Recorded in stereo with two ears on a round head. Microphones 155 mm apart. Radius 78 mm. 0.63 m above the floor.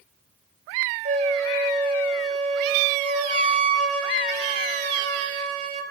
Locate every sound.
1.1 s a flute: 45° right (ahead or behind), 2.5 m